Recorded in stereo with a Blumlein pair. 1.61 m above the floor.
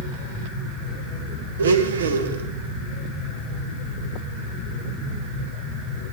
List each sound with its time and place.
1.6 s a blender: 65° right, 0.8 m